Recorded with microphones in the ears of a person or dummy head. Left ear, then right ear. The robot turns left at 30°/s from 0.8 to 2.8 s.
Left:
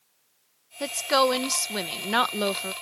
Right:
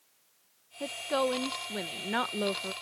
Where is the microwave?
No microwave in this recording.